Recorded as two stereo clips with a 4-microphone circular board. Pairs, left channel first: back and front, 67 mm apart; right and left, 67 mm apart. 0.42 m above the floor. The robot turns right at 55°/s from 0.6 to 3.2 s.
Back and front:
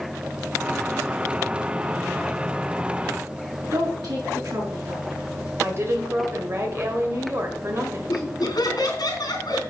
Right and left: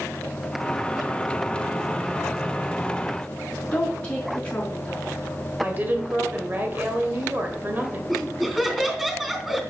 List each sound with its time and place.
3.7 s a woman speaking: 20° right, 4.5 m
5.6 s a woman speaking: 35° left, 1.8 m
8.1 s laughter: 175° left, 3.5 m